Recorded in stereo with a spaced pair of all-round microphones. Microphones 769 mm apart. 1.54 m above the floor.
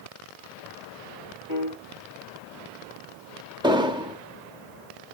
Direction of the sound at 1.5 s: 80° left.